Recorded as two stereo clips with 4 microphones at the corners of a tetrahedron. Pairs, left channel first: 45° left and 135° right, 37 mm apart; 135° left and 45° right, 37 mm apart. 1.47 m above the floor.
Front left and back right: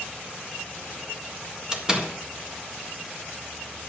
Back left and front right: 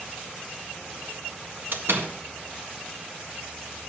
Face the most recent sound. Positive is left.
turn(degrees=-65)